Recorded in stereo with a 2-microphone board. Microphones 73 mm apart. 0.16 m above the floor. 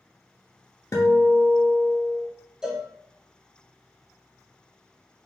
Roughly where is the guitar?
Left.